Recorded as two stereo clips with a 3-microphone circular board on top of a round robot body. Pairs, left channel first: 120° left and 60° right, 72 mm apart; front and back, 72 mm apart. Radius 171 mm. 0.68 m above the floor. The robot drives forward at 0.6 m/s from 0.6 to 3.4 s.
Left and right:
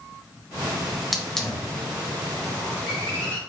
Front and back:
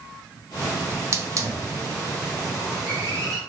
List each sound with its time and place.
0.9 s a hiss: 145° right, 0.9 m; by 3.4 s 170° right, 2 m